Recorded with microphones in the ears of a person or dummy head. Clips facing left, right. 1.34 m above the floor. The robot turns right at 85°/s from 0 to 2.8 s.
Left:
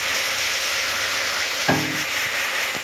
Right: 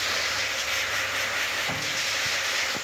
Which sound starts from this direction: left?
A piano, at 1.7 s.